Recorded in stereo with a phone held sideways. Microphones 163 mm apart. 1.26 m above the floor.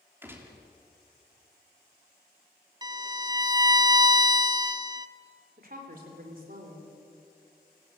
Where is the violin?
25° right (ahead or behind), 0.7 m.